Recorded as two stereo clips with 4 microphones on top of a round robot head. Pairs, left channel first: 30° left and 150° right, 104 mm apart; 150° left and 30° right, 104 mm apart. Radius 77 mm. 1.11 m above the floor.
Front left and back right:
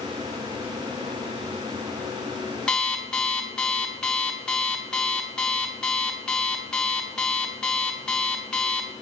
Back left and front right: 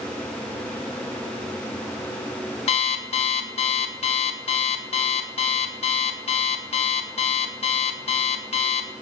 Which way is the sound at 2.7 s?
115° left.